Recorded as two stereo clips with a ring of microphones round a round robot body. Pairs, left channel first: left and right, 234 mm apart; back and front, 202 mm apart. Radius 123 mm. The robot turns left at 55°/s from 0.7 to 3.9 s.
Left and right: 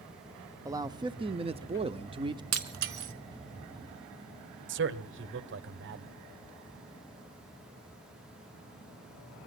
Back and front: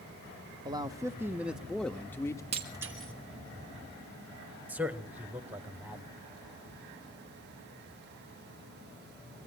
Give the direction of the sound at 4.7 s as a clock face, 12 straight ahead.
3 o'clock.